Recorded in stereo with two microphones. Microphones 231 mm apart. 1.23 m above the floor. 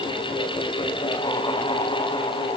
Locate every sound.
Only background noise.